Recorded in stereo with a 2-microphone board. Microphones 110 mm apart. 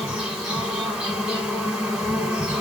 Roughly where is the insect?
Centre.